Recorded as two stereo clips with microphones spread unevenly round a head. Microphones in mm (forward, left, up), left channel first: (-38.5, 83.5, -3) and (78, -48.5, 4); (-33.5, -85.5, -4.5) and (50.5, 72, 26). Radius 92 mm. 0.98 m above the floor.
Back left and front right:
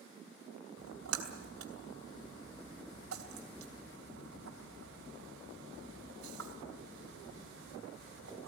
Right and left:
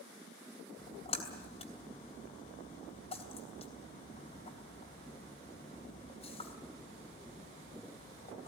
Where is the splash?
60° right, 3 m.